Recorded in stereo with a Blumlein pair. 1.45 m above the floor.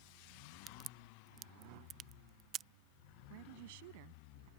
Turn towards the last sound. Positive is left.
turn(degrees=-50)